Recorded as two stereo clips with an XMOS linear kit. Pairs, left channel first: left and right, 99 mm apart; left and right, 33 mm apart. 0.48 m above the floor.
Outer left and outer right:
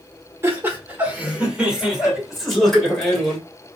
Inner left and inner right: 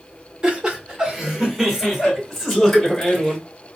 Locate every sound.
0.4 s laughter: 25° right (ahead or behind), 1.5 m; by 3.4 s 10° left (ahead or behind), 2 m